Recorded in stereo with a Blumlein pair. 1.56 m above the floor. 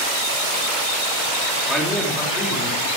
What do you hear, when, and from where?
1.7 s a man speaking: 5° right, 3.5 m; by 2.9 s 10° left, 3.5 m